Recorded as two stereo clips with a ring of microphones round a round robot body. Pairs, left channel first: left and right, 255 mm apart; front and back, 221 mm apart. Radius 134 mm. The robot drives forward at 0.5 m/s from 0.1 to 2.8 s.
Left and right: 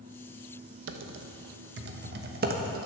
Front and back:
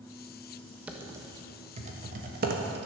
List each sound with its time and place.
0.9 s typing on a keyboard: 95° right, 1.1 m; by 2.9 s 140° right, 1.5 m